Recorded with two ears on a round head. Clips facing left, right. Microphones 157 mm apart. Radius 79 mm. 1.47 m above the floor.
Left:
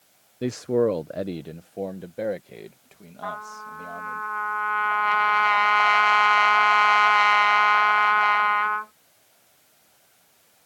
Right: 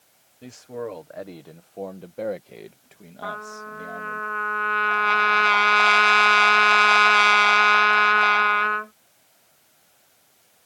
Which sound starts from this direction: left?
A man speaking, at 0.4 s.